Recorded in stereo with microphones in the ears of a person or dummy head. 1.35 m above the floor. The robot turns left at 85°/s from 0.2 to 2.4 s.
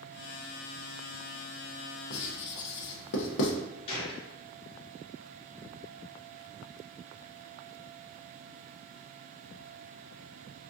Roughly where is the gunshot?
Left.